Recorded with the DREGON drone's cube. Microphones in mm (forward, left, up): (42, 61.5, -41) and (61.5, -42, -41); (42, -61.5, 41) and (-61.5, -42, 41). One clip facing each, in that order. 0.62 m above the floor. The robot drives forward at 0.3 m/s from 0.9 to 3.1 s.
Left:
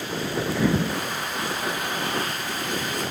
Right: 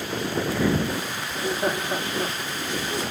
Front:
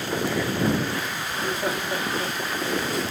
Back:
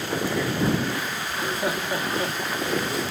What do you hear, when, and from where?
1.3 s laughter: 110° right, 1.5 m; by 3.0 s 130° right, 1.7 m